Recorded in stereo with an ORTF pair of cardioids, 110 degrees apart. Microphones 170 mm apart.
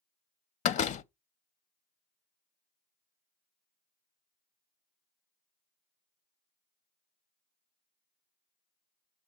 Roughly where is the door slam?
Ahead left.